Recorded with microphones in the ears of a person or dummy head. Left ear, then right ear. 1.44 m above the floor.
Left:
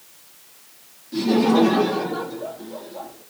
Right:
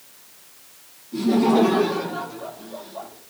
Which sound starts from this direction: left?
Laughter, at 1.1 s.